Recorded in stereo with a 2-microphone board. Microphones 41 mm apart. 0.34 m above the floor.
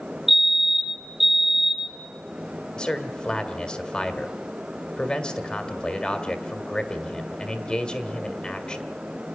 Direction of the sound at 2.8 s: 25° left (ahead or behind).